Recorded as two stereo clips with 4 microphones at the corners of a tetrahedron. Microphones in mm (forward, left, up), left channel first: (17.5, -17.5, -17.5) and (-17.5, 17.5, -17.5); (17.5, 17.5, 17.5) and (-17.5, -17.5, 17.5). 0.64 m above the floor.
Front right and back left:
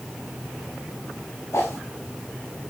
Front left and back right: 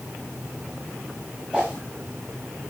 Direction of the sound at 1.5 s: 65° right.